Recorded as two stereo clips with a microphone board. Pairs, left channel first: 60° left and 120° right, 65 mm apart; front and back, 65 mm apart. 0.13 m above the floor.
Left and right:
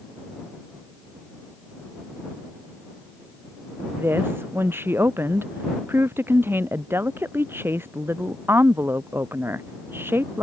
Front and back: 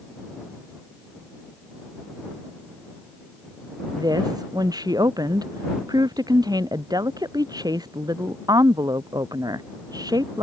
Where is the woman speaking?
175° right.